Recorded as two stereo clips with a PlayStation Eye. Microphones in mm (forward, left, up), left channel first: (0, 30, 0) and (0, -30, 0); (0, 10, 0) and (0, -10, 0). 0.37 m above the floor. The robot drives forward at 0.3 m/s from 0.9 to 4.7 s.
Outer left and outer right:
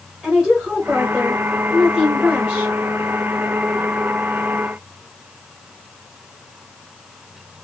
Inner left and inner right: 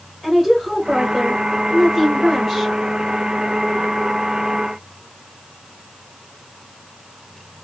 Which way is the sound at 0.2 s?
10° right (ahead or behind).